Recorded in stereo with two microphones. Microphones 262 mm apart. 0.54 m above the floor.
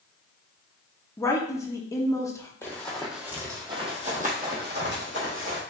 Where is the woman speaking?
10° left (ahead or behind), 0.6 m.